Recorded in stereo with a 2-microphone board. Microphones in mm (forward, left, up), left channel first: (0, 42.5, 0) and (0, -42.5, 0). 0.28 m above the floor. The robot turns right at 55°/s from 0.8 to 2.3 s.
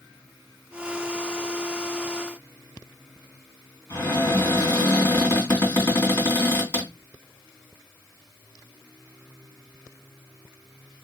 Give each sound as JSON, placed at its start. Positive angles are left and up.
{"t": 3.9, "sound": "a cupboard door", "side_deg": 30, "distance_m": 2.0}